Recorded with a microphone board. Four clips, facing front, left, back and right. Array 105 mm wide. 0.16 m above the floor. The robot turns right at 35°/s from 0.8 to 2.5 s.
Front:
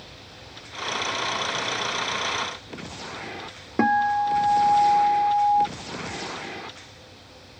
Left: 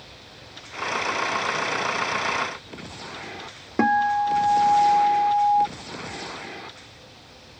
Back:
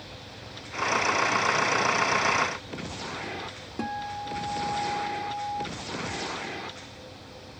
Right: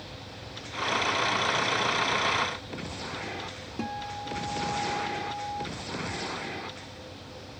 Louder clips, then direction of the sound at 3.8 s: Left 16 dB, front 13 dB; 50° left.